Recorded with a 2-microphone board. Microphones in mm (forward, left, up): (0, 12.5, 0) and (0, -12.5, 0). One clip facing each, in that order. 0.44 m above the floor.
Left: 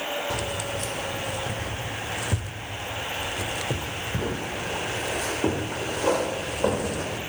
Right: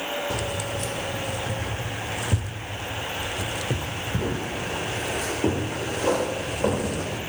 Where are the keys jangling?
15° left (ahead or behind), 1.1 m.